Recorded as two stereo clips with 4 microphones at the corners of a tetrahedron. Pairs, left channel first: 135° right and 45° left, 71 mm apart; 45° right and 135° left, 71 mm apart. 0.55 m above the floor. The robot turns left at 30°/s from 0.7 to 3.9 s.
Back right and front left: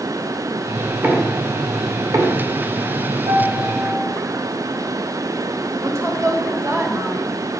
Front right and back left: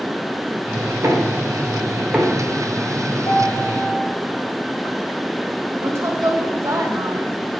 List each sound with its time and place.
1.0 s knocking: 100° left, 1.8 m; by 2.5 s 55° left, 1.8 m
3.3 s a piano: 5° right, 1.8 m; by 4.2 s 25° right, 1.8 m
5.8 s a woman speaking: 90° left, 2.0 m